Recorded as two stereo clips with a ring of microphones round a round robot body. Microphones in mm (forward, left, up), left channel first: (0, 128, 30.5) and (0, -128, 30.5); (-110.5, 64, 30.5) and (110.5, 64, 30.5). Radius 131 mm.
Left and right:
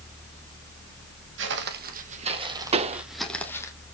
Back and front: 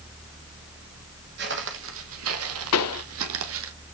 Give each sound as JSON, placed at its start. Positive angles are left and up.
{"t": 1.4, "sound": "footsteps", "azimuth_deg": -50, "distance_m": 2.0}
{"t": 2.7, "sound": "a pop", "azimuth_deg": -155, "distance_m": 0.8}